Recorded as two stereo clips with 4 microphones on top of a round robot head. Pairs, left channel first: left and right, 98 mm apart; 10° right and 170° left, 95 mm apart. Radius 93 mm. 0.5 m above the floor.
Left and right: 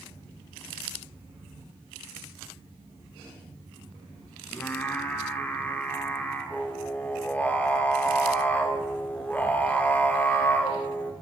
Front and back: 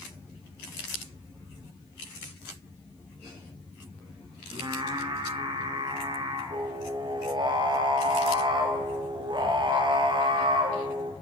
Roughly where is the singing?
Behind.